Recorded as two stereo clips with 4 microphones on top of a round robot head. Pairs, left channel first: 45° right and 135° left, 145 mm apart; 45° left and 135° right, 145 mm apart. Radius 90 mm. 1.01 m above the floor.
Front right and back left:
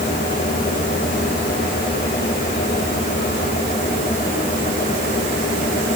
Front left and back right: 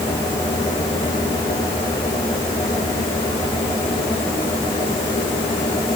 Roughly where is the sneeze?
No sneeze in this recording.